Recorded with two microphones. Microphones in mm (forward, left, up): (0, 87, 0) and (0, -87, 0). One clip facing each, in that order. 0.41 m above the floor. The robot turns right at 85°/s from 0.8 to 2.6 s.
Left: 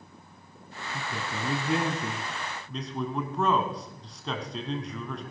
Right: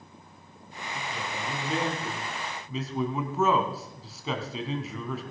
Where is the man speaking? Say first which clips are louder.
Left 1 dB; 45° left, 3 m; by 5.2 s 175° right, 3 m.